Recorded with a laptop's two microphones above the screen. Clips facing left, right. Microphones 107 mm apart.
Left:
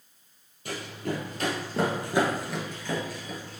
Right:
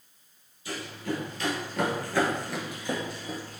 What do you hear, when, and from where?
0.7 s running footsteps: 55° left (ahead or behind), 1.6 m; by 3.6 s 45° right (ahead or behind), 1.2 m